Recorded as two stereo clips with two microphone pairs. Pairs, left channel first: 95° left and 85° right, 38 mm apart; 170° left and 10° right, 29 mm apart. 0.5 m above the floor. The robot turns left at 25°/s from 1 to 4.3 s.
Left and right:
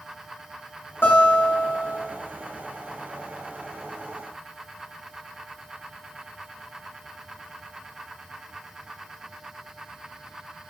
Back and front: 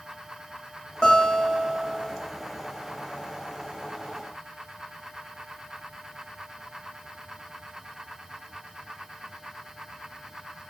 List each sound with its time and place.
1.0 s a guitar: 105° left, 0.9 m; by 2.0 s 85° left, 0.9 m